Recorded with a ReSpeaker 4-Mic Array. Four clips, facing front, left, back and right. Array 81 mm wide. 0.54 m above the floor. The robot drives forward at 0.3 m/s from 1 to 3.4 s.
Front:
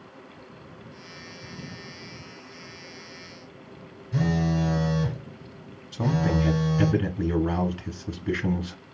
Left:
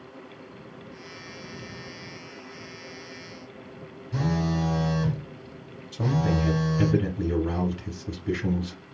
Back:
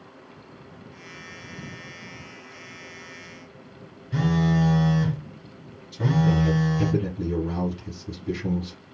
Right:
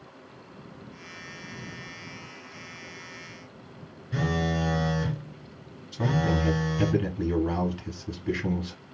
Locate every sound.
4.1 s a phone buzzing: 135° right, 1.9 m
5.9 s a man speaking: 5° left, 0.7 m